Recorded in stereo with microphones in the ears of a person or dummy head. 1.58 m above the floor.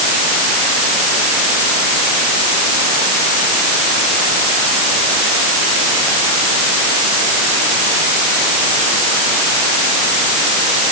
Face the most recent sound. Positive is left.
No sound to turn to.